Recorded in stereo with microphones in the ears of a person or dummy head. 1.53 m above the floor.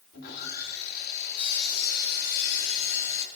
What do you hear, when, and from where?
0.1 s sawing: 50° left (ahead or behind), 3 m